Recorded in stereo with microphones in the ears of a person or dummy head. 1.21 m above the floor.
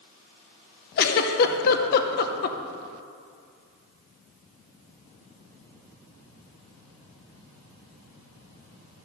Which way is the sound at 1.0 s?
55° left (ahead or behind).